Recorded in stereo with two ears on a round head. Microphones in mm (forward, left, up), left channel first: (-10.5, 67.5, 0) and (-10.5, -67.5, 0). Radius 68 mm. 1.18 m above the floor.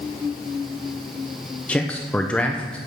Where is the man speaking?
5° left (ahead or behind), 0.5 m.